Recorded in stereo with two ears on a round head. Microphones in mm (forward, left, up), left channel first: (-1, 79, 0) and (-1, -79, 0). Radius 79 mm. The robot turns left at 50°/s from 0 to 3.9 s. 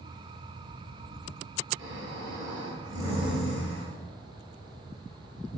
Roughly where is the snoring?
Right.